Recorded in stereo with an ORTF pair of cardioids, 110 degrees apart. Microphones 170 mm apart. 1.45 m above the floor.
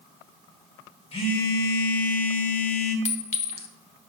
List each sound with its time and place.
1.1 s a phone buzzing: 35° left, 1.6 m
3.0 s a clink: 45° left, 1.0 m